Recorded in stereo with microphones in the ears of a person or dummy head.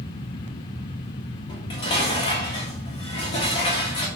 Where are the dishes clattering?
30° left (ahead or behind), 1.7 m.